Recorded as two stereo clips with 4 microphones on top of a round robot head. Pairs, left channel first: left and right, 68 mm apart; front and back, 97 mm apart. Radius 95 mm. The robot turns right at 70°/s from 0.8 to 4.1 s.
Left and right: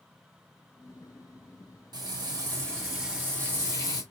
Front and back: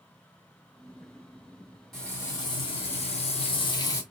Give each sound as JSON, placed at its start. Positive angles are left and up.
{"t": 1.9, "sound": "frying", "azimuth_deg": -90, "distance_m": 2.5}